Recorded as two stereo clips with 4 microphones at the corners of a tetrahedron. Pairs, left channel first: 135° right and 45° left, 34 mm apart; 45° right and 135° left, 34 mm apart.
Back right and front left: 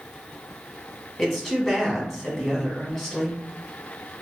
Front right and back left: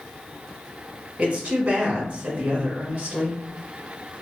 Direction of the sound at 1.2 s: 150° left.